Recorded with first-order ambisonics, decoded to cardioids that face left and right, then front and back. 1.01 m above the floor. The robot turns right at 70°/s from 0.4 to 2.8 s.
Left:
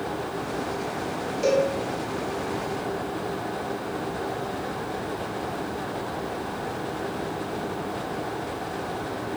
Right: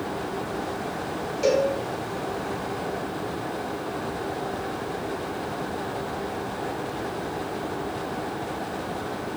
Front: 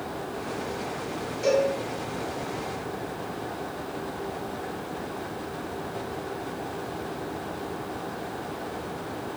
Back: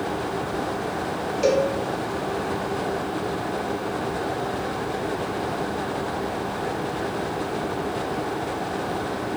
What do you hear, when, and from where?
1.4 s a cowbell: 175° right, 0.8 m; by 1.7 s 155° right, 0.8 m